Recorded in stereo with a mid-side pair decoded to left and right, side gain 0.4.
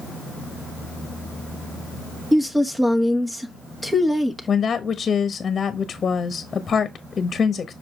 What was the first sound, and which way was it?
A woman speaking, 10° right.